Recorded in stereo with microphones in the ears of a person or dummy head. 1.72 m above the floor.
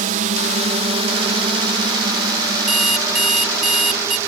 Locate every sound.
0.0 s a drone: 45° right (ahead or behind); by 4.3 s 15° right (ahead or behind)
2.7 s an alarm clock: centre (ahead or behind)